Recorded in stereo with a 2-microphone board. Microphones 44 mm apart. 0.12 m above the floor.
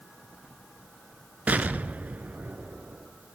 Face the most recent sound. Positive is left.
turn(degrees=-40)  # may be behind; listen again after turning